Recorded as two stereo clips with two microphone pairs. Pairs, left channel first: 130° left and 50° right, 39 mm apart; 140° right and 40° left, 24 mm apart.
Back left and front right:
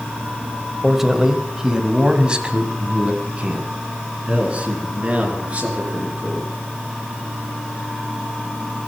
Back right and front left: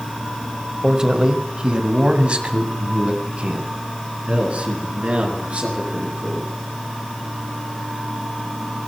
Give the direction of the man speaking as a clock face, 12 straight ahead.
11 o'clock.